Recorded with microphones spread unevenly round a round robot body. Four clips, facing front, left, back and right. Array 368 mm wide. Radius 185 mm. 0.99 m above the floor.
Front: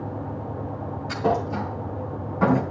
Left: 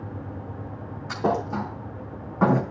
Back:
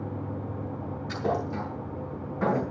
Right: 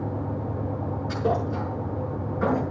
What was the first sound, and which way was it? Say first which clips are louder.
A thud: left 2 dB, front 5 dB; 70° left.